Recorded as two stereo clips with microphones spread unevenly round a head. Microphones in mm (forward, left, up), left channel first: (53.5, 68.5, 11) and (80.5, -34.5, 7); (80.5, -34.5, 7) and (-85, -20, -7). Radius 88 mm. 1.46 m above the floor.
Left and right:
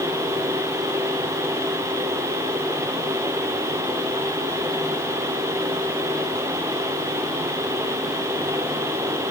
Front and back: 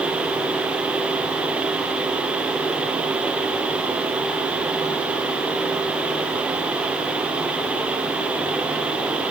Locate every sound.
Only background noise.